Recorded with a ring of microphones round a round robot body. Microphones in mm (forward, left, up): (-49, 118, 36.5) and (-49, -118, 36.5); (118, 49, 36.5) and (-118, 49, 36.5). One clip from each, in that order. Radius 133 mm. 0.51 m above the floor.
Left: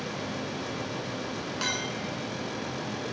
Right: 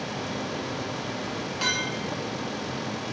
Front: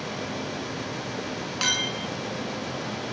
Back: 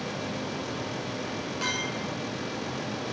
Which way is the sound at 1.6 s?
10° left.